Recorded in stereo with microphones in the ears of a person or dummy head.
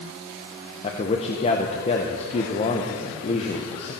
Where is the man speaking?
35° left (ahead or behind), 0.9 m.